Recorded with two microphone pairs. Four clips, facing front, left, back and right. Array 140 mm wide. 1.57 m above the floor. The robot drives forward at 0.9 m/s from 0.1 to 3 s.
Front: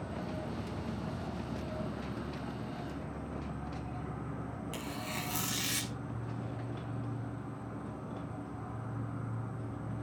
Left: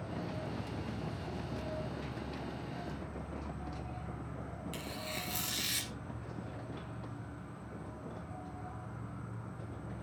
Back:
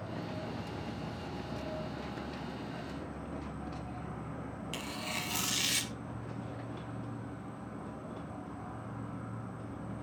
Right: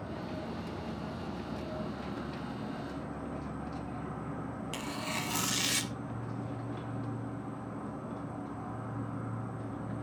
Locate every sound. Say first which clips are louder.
0.0 s an insect: right 2 dB, front 1 dB; 55° right, 4.5 m; by 10.0 s 90° right, 4 m
4.7 s tearing paper: right 6 dB, back 1 dB; 90° right, 1.3 m